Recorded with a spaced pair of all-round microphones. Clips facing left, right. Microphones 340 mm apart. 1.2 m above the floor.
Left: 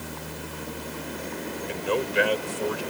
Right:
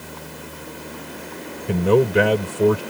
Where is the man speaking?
70° right (ahead or behind).